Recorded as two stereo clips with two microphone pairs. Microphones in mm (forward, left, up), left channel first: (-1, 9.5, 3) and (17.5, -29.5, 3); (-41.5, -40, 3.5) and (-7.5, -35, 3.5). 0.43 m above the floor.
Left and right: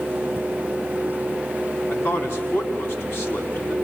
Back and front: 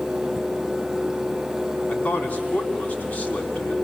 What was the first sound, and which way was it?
A man speaking, 140° left.